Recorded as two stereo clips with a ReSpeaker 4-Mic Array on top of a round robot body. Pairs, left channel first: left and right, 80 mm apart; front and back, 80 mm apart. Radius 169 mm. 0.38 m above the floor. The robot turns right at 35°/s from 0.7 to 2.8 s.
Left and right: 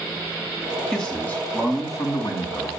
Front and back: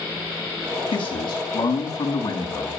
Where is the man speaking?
5° left, 6 m; by 2.8 s 70° left, 6 m.